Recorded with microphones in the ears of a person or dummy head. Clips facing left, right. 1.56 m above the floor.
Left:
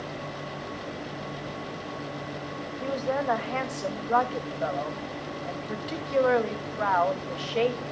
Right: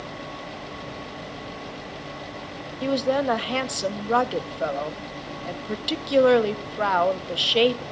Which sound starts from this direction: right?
A woman speaking, at 2.8 s.